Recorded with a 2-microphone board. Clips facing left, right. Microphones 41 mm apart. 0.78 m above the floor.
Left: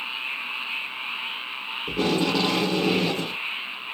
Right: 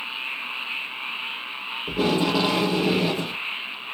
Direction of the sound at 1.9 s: 10° right (ahead or behind).